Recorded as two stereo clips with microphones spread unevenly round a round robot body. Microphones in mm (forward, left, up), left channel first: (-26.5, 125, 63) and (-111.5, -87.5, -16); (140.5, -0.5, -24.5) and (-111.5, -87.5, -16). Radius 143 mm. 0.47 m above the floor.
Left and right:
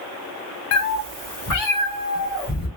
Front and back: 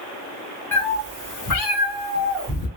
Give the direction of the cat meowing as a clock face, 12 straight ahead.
9 o'clock.